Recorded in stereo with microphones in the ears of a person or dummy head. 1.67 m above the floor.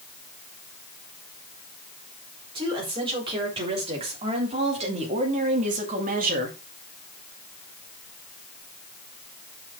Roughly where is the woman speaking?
Right.